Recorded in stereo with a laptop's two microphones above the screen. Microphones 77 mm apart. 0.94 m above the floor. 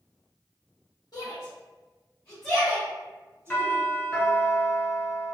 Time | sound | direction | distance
1.1 | a shout | 55° left (ahead or behind) | 1.0 m
3.5 | a doorbell | 25° left (ahead or behind) | 1.0 m